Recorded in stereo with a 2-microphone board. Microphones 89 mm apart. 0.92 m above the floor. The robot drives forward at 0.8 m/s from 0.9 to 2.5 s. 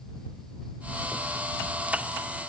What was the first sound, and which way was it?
Only background noise.